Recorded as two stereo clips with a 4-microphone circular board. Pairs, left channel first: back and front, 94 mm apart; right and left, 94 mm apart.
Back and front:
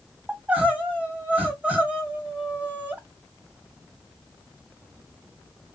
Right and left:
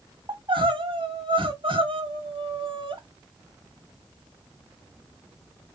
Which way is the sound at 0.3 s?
75° left.